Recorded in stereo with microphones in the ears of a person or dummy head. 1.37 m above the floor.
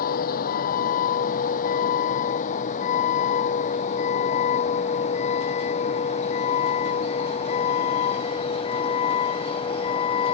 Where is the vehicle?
55° left (ahead or behind); by 10.4 s 35° left (ahead or behind).